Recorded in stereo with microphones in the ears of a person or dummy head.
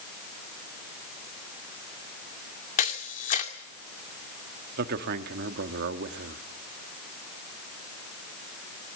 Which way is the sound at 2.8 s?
45° left (ahead or behind).